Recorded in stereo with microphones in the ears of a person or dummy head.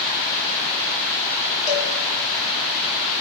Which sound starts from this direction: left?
A cowbell, at 1.7 s.